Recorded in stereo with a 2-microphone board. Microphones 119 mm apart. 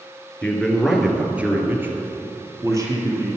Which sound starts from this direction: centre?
A man speaking, at 0.4 s.